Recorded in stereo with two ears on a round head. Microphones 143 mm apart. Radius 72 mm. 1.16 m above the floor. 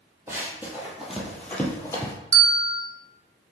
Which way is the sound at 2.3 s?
20° right (ahead or behind).